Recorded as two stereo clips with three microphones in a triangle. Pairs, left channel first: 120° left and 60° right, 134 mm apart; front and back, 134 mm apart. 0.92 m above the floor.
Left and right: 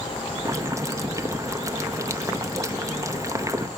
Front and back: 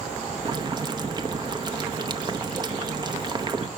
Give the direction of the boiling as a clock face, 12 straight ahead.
4 o'clock.